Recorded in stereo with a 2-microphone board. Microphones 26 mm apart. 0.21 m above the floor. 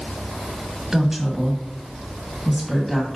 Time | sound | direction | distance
0.9 | a woman speaking | 10° right (ahead or behind) | 1.4 m